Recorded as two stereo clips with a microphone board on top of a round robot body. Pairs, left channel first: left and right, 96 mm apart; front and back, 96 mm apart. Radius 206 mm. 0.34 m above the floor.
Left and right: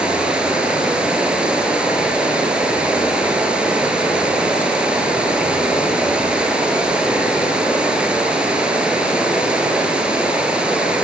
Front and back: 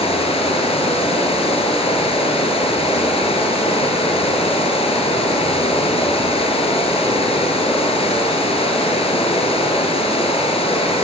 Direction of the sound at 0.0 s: 10° right.